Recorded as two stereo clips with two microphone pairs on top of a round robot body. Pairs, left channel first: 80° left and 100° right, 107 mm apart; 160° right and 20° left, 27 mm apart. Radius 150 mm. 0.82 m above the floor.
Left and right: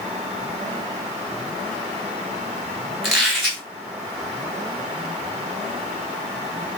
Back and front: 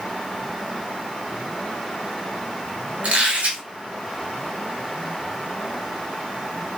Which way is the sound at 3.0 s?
15° right.